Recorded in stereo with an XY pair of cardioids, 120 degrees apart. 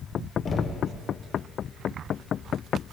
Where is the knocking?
45° left, 1.3 m.